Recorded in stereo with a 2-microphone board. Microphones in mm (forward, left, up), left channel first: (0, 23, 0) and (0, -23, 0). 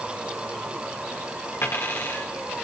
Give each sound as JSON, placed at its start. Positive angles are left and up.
{"t": 1.6, "sound": "a dropped coin", "side_deg": 65, "distance_m": 4.5}